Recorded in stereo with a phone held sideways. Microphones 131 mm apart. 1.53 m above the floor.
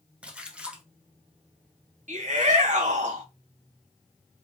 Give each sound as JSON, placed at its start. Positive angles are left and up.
{"t": 0.2, "sound": "a splash", "side_deg": -10, "distance_m": 1.0}
{"t": 2.1, "sound": "a shout", "side_deg": -70, "distance_m": 1.1}